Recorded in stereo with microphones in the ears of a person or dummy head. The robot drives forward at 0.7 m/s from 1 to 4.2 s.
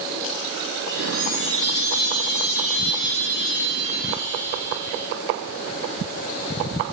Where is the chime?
55° left (ahead or behind), 2.5 m.